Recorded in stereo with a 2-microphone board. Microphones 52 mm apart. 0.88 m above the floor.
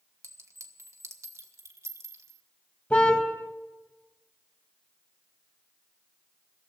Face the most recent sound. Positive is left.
turn(degrees=25)  # may be behind; listen again after turning